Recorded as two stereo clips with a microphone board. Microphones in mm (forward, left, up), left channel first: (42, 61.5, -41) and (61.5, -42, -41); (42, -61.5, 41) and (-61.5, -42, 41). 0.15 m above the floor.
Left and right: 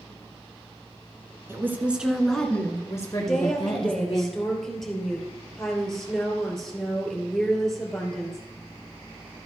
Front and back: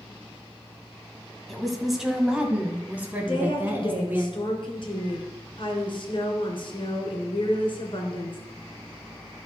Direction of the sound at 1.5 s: 95° right.